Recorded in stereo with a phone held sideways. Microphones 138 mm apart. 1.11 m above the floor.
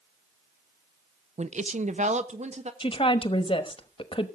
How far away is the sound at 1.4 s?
About 0.5 m.